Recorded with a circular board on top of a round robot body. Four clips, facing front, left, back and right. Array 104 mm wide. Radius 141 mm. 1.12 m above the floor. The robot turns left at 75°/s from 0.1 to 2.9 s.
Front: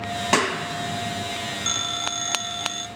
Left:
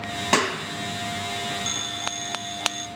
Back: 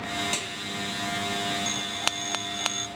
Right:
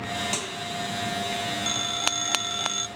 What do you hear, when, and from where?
0.3 s a clap: 45° left; by 1.3 s 30° right
1.7 s a phone ringing: straight ahead; by 2.9 s 90° right